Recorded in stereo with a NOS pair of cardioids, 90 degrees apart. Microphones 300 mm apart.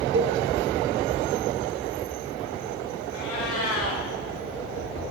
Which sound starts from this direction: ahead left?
A cat meowing, at 3.1 s.